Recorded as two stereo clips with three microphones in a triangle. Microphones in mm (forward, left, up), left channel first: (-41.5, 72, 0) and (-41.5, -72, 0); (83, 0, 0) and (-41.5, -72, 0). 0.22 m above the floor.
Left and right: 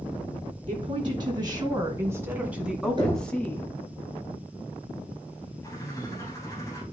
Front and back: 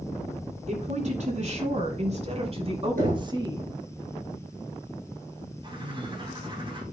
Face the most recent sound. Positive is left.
turn(degrees=160)